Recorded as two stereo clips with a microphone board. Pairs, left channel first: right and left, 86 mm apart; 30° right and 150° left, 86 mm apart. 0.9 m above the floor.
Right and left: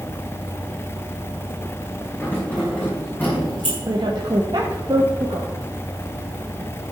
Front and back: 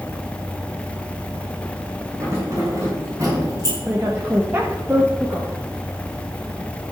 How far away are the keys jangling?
About 4.5 m.